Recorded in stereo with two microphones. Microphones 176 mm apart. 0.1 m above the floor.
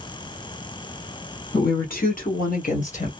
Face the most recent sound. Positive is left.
turn(degrees=45)  # may be behind; listen again after turning